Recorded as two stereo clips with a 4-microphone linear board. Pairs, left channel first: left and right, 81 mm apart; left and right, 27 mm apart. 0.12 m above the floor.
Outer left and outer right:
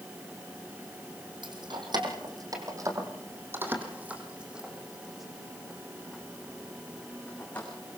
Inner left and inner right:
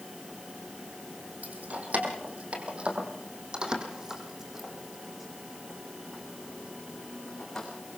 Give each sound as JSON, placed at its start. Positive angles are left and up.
{"t": 1.4, "sound": "keys jangling", "side_deg": -70, "distance_m": 4.0}